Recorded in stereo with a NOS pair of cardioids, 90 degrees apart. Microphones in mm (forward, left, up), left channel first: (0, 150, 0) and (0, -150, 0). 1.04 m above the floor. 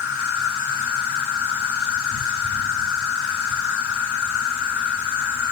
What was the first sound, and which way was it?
An insect, 70° left.